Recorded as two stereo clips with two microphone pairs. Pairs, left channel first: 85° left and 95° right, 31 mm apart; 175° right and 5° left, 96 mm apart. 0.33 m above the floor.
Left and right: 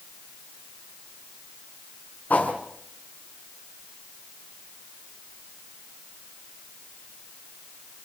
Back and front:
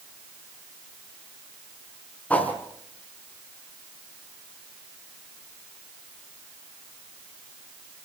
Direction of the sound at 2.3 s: 115° left.